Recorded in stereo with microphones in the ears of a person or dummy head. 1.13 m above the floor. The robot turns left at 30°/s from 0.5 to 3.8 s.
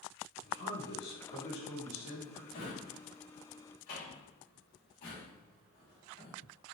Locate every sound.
0.4 s a man speaking: 100° left, 1.6 m; by 2.4 s 45° left, 1.6 m
2.5 s a drawer: 85° left, 2.5 m; by 6.4 s 45° left (ahead or behind), 2.5 m